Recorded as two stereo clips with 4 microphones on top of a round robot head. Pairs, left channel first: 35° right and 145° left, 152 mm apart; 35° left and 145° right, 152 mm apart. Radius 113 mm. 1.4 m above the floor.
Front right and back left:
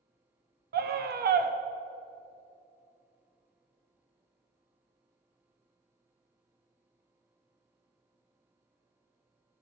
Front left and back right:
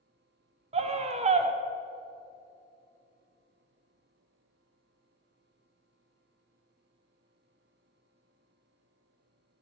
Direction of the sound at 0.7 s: 165° left.